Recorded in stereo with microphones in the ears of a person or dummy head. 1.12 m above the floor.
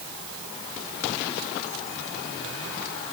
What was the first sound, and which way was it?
Only background noise.